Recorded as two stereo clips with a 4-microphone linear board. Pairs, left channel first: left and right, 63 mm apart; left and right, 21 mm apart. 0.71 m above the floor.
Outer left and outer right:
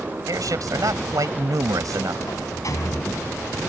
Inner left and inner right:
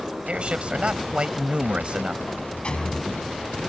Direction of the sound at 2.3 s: 65° left (ahead or behind).